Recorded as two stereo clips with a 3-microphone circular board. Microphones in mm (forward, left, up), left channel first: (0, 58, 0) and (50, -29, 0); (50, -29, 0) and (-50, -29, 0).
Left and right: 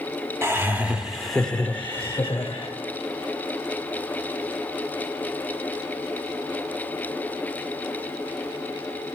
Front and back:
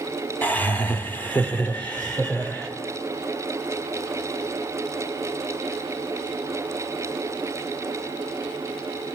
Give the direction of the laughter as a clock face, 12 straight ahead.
2 o'clock.